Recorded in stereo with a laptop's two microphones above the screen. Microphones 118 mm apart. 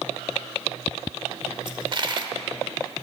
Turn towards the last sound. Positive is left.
turn(degrees=-40)  # may be behind; listen again after turning